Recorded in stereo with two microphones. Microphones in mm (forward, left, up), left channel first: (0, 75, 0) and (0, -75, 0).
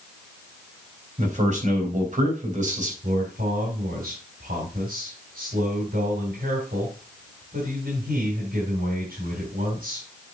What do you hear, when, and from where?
1.2 s a man speaking: 55° right (ahead or behind), 3.5 m
3.0 s a man speaking: 75° right (ahead or behind), 3.5 m